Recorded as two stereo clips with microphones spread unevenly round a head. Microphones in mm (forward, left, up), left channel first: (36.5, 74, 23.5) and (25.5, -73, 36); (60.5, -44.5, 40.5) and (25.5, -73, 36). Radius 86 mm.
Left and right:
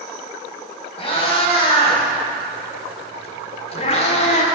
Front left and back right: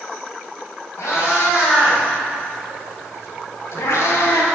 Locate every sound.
1.0 s a cat meowing: 35° left, 4 m; by 4.5 s 45° left, 1.5 m